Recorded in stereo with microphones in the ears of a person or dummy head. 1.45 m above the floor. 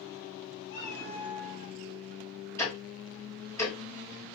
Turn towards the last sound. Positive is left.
turn(degrees=15)  # may be behind; listen again after turning